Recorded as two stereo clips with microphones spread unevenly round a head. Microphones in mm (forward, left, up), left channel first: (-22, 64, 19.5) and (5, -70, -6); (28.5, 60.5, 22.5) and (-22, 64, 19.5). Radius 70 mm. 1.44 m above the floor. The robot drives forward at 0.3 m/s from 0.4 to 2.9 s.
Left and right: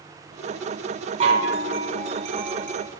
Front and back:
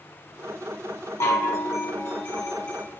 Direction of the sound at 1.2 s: 30° right.